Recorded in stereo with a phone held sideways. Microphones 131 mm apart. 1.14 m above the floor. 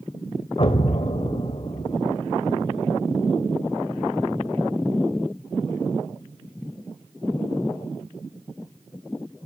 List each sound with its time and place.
0.6 s an explosion: 45° left (ahead or behind), 1.4 m